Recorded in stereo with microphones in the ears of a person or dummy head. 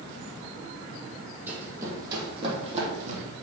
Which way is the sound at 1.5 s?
10° right (ahead or behind).